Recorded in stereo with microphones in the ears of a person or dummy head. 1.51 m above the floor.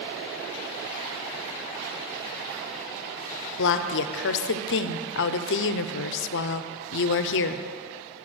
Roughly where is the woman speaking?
Left.